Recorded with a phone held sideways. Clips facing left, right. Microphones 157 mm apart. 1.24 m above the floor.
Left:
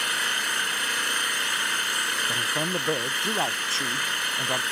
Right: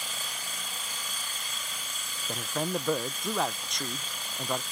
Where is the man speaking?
5° left (ahead or behind).